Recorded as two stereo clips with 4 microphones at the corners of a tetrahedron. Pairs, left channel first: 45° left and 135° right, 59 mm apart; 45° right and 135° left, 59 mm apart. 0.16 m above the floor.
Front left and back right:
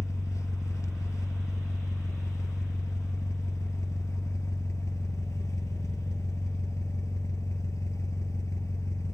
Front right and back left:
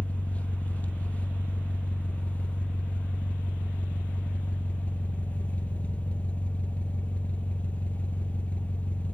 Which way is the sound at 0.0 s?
20° left.